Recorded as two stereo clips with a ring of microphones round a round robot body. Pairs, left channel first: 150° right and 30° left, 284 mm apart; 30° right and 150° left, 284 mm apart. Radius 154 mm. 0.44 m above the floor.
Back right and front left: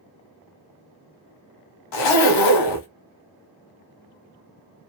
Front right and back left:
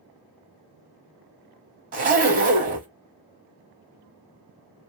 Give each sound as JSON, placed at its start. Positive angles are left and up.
{"t": 1.9, "sound": "a zipper", "azimuth_deg": -145, "distance_m": 0.9}